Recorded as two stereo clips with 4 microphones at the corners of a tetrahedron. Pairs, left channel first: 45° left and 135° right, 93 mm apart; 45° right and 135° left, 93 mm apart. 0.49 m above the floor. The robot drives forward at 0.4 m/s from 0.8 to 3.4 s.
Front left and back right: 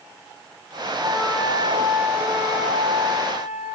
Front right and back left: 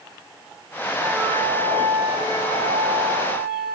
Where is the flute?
145° left, 6 m; by 3.8 s 150° left, 7 m.